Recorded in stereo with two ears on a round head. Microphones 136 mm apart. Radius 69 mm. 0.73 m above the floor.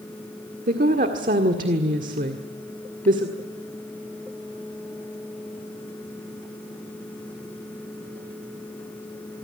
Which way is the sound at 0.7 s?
60° right (ahead or behind).